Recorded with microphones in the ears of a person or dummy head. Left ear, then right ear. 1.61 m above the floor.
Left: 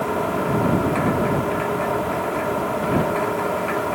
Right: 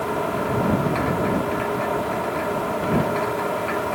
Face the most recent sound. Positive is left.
turn(degrees=-5)  # may be behind; listen again after turning